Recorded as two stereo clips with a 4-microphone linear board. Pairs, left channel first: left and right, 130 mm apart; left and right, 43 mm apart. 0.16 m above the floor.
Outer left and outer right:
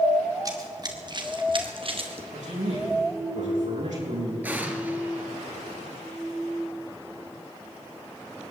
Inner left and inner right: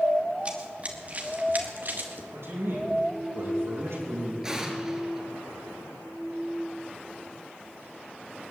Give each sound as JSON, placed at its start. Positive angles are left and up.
{"t": 0.5, "sound": "running footsteps", "side_deg": -25, "distance_m": 2.5}
{"t": 2.3, "sound": "a man speaking", "side_deg": -80, "distance_m": 7.0}
{"t": 4.4, "sound": "an explosion", "side_deg": -15, "distance_m": 2.5}